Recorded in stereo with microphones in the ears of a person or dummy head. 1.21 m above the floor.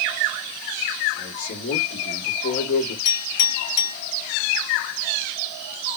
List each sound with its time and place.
1.2 s a man speaking: 70° left (ahead or behind), 2 m
3.0 s a clink: 50° left (ahead or behind), 2 m